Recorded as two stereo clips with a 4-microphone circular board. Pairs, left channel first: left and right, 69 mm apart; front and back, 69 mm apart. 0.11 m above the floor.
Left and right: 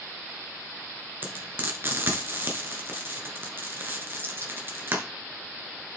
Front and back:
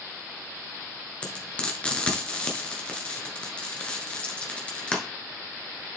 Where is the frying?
65° right, 1.7 m.